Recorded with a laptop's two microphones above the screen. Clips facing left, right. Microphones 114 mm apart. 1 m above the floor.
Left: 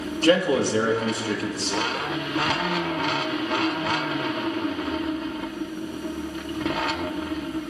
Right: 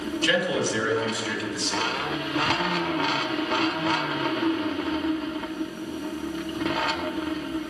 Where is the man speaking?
40° left (ahead or behind), 2 m.